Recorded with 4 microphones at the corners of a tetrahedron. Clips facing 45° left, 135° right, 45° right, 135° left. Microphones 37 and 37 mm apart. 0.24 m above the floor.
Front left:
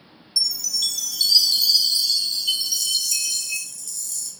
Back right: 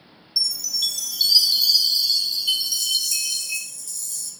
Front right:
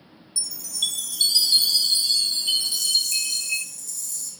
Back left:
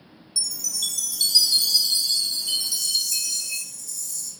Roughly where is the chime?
Ahead right.